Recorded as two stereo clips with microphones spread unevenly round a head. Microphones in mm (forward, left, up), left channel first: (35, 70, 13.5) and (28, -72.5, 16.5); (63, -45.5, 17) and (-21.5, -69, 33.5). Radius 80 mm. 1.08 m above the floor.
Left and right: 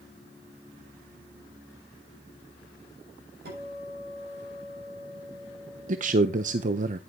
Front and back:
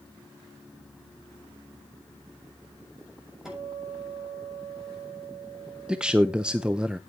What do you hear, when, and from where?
3.5 s a guitar: 80° right, 7 m
5.9 s a man speaking: 80° right, 0.8 m